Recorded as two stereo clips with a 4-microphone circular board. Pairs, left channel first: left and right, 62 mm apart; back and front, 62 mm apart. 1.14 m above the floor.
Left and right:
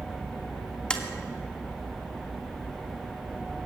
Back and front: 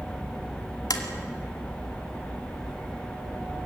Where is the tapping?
165° left, 2 m.